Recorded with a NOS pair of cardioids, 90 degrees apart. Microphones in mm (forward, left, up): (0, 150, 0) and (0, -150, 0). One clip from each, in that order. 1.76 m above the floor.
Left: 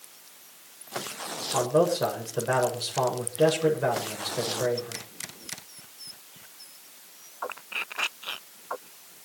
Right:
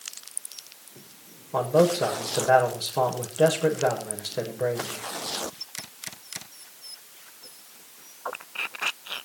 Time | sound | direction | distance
1.5 | a man speaking | 10° right | 7.5 m